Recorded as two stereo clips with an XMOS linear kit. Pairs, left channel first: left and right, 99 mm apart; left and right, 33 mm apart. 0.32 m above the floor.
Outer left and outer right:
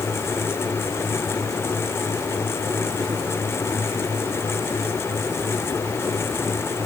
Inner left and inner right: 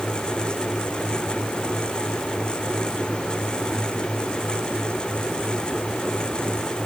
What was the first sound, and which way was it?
Only background noise.